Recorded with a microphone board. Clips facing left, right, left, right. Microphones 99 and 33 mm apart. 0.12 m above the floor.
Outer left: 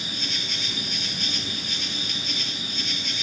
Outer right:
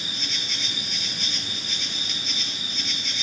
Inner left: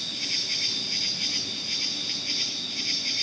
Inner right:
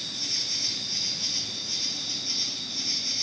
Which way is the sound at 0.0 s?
50° left (ahead or behind).